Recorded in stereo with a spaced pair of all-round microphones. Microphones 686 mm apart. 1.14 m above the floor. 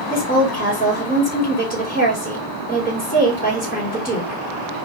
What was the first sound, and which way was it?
A woman speaking, 10° left (ahead or behind).